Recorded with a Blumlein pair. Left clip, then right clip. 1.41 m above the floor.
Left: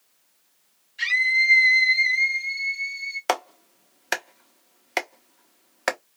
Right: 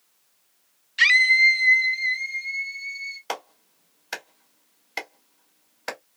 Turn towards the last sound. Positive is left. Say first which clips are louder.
# left 8 dB
turn(degrees=45)